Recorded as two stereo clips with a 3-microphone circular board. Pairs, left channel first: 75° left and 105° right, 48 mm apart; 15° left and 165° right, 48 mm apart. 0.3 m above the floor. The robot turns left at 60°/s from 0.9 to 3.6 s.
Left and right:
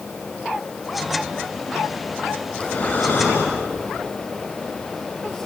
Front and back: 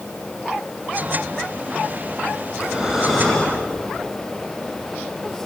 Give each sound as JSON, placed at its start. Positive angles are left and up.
{"t": 2.5, "sound": "breathing", "azimuth_deg": 140, "distance_m": 6.0}